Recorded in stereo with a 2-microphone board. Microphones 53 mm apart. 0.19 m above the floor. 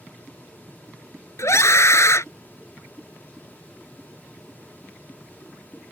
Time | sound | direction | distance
1.4 | a scream | 60° left (ahead or behind) | ?